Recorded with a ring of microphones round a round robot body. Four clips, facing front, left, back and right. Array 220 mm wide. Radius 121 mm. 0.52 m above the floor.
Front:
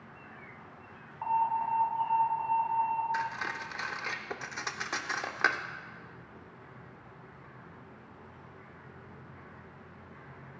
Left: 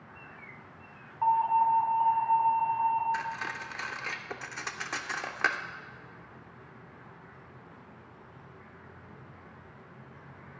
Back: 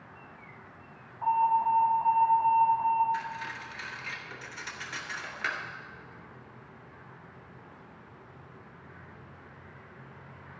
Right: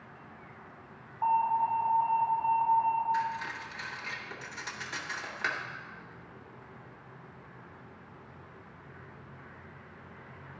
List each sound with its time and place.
1.2 s an alarm: 65° left, 3.5 m
3.1 s cutlery clinking: 35° left, 0.7 m